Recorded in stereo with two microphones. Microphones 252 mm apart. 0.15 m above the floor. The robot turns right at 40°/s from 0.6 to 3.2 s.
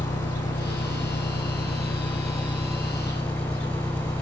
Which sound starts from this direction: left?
An engine running, at 0.0 s.